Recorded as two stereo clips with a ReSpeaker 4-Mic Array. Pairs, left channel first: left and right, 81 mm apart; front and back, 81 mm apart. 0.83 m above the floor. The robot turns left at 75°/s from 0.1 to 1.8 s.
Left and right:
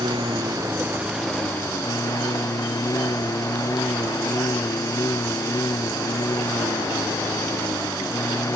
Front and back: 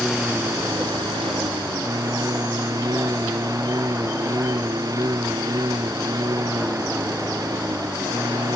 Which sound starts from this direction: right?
A lawn mower, at 0.0 s.